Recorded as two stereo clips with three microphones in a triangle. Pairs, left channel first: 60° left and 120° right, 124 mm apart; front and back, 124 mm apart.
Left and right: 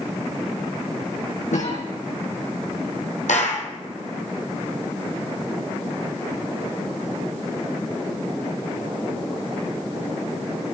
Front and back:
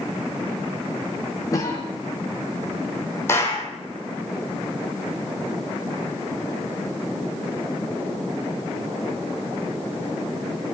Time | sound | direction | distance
1.5 | a cough | 60° left | 8 m
3.3 | a clap | 70° left | 4.5 m